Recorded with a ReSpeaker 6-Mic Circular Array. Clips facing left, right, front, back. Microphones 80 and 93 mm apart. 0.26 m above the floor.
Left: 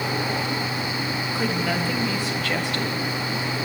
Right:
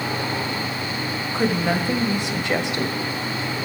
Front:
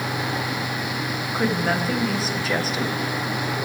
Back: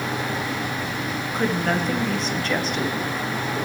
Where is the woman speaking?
80° right, 1.3 m.